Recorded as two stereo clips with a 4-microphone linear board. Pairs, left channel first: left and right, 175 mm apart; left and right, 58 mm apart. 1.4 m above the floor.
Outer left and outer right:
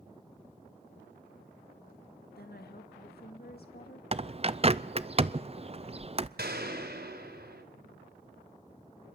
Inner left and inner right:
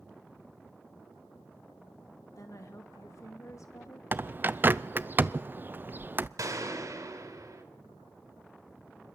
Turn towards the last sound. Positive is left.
turn(degrees=-70)  # may be behind; listen again after turning